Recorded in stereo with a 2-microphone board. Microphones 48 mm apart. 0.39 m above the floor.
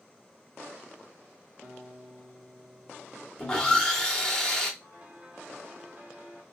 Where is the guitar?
10° right (ahead or behind), 1.3 m.